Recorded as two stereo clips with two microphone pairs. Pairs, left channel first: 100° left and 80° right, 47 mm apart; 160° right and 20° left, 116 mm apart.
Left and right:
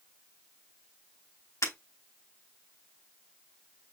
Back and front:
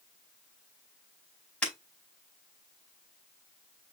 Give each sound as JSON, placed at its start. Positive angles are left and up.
{"t": 1.6, "sound": "breaking glass", "azimuth_deg": 115, "distance_m": 5.0}